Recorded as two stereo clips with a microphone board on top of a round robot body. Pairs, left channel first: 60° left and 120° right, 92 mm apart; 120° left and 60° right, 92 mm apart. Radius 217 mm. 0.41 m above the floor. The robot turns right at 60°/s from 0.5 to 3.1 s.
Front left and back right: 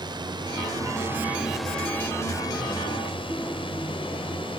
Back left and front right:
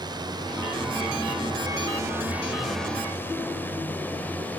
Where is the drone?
90° right; by 4.6 s 50° left.